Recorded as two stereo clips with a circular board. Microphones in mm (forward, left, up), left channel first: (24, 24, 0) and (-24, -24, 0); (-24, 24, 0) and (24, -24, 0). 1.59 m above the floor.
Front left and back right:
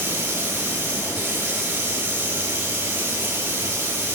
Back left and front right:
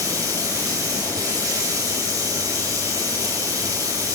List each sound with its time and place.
0.0 s running water: 80° right, 4.5 m